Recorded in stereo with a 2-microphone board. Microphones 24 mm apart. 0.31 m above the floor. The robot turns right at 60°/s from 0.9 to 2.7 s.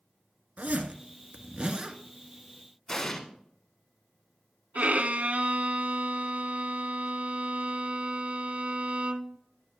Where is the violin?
65° right (ahead or behind), 0.6 m.